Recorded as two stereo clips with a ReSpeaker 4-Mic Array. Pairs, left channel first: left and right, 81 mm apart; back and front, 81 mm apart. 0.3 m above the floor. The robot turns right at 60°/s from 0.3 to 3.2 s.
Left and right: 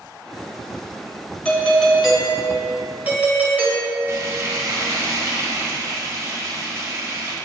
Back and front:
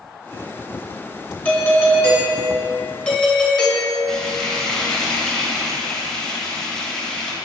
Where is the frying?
100° right, 1.0 m.